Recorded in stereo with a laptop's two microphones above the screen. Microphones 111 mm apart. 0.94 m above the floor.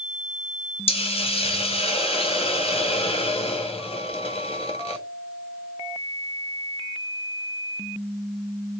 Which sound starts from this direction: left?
A hiss, at 0.9 s.